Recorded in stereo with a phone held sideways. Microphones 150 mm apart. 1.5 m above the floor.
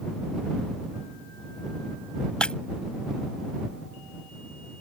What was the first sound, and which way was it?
Breaking glass, 5° left (ahead or behind).